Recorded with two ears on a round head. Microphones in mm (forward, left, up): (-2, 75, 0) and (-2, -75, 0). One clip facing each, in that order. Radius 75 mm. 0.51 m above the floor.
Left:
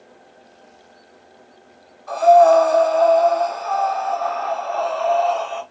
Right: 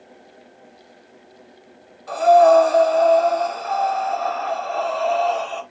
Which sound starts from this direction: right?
Breathing, at 2.1 s.